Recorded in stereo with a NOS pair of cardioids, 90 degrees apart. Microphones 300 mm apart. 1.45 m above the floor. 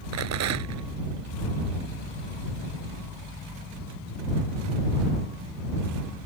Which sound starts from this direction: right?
A rattle, at 0.1 s.